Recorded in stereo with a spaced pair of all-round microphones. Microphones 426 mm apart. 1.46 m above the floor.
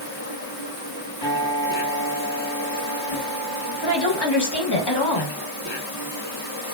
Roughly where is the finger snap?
No finger snap in this recording.